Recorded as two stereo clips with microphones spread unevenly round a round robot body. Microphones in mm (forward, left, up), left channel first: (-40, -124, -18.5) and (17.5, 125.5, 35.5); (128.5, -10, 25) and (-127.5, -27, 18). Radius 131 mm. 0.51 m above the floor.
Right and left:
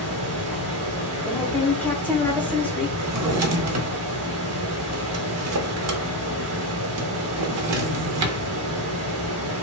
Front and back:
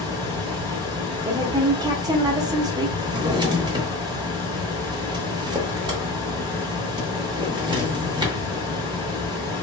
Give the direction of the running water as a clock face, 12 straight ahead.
8 o'clock.